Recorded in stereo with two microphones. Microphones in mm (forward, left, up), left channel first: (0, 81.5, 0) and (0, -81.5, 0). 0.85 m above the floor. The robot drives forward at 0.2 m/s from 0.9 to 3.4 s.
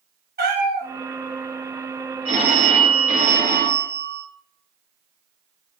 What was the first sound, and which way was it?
A cat meowing, 80° right.